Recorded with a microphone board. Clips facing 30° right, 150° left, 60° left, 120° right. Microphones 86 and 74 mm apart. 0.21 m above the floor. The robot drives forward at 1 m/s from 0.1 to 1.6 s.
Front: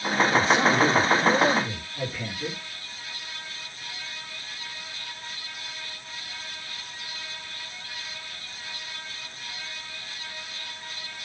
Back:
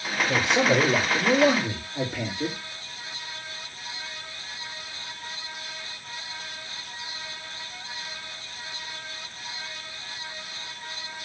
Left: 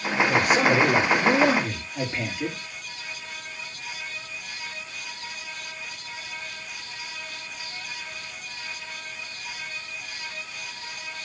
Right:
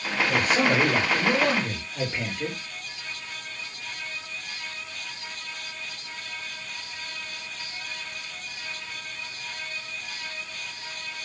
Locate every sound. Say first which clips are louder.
0.3 s a man speaking: back 1 dB, left 2 dB; 140° left, 4 m; by 2.6 s 150° left, 5 m